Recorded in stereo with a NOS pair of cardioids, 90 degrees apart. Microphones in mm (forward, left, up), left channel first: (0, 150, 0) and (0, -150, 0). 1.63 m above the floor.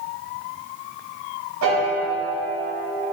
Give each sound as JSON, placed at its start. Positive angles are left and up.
{"t": 1.6, "sound": "a piano", "azimuth_deg": -70, "distance_m": 0.9}